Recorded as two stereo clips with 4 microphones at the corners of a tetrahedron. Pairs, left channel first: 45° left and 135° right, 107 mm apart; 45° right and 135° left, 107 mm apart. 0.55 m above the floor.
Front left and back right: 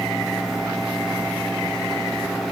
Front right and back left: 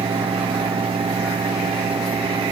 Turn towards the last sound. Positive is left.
No sound to turn to.